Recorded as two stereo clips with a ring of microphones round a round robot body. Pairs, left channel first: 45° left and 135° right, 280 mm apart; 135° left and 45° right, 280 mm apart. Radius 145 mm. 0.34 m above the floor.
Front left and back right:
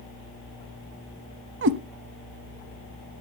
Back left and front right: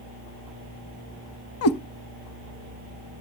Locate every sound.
1.6 s a cat meowing: 175° left, 0.7 m